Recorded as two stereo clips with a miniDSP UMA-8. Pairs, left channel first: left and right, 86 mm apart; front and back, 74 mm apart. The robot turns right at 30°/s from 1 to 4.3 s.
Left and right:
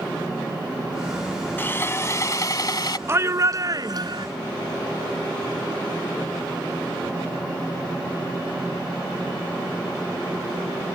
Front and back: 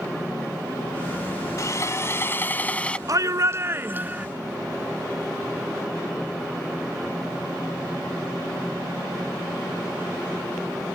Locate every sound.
1.6 s sawing: 30° left; by 3.0 s 70° left
3.1 s a shout: 145° right; by 4.3 s 110° right